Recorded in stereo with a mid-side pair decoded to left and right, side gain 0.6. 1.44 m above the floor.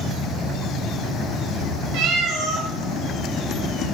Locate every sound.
1.9 s a cat meowing: 60° right, 2.5 m